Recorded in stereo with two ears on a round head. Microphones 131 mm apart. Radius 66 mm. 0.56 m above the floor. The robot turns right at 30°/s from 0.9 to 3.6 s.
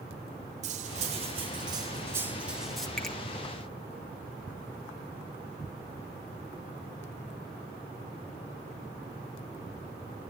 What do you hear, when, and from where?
0.6 s cutlery clinking: 55° right, 0.9 m; by 2.9 s 5° left, 0.9 m
3.0 s a finger snap: 5° left (ahead or behind), 1.3 m; by 3.2 s centre (ahead or behind), 1.3 m